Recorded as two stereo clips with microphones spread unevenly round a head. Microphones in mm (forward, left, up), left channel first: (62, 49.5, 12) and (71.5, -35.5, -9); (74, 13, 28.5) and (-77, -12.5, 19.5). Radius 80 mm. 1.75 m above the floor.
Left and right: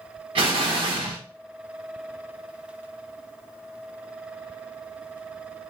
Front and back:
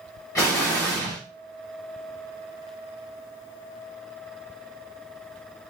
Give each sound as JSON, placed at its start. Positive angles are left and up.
{"t": 0.3, "sound": "an explosion", "azimuth_deg": -60, "distance_m": 2.5}